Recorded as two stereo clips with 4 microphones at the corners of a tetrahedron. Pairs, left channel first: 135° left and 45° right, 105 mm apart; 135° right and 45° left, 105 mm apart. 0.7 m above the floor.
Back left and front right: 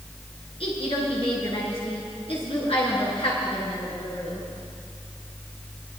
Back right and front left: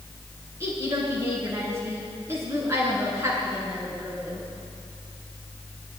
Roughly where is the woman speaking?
Left.